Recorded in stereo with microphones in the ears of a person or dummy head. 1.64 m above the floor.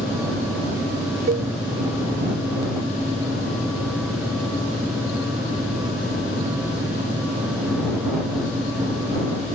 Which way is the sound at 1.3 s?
40° right (ahead or behind).